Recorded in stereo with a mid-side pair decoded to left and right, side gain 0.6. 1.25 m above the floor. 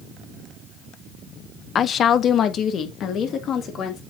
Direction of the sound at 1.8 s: 40° left.